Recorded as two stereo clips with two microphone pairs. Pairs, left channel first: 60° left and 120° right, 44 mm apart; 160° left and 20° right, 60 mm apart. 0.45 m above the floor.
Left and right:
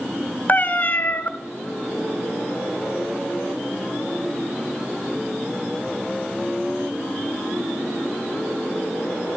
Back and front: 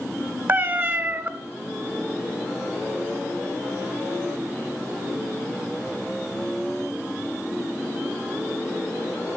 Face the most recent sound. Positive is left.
turn(degrees=25)